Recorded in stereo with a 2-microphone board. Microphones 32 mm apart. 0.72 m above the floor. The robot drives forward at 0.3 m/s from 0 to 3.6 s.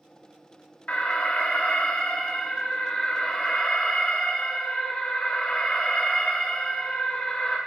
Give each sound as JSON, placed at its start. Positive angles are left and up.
{"t": 0.9, "sound": "an alarm", "side_deg": 50, "distance_m": 1.0}